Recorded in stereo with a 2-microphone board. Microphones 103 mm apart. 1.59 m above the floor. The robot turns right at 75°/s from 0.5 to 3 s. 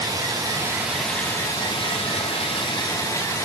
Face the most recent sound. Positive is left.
turn(degrees=145)